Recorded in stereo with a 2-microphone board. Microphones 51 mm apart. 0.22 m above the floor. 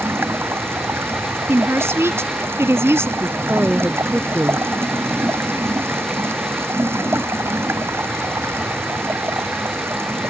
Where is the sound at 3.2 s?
35° right (ahead or behind).